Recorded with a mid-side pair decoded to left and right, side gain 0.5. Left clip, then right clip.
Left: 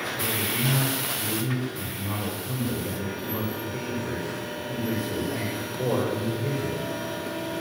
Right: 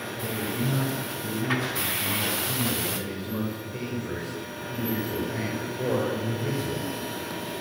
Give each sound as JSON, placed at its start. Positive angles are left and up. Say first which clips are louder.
{"t": 0.2, "sound": "a man speaking", "louder": "left 2 dB", "azimuth_deg": 5, "distance_m": 7.5}